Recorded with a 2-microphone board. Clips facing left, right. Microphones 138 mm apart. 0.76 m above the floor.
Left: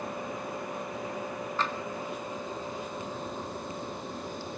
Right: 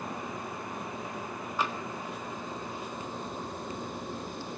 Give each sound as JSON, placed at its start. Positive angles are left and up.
{"t": 1.6, "sound": "tapping", "side_deg": -10, "distance_m": 1.5}